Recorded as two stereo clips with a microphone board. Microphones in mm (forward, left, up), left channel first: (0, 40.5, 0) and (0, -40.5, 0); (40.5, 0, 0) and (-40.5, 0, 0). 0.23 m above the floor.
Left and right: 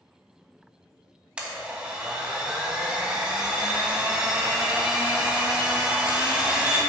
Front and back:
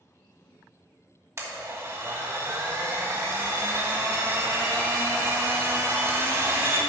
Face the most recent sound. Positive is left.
turn(degrees=-160)